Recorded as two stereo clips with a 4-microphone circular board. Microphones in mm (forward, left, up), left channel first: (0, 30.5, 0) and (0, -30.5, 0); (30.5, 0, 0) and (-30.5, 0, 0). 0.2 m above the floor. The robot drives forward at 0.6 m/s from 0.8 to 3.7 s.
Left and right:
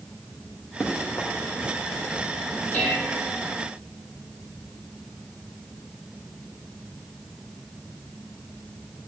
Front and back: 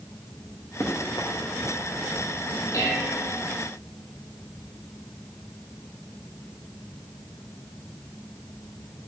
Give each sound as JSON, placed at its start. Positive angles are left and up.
{"t": 0.8, "sound": "running footsteps", "azimuth_deg": 40, "distance_m": 3.0}
{"t": 2.7, "sound": "dishes clattering", "azimuth_deg": 30, "distance_m": 4.5}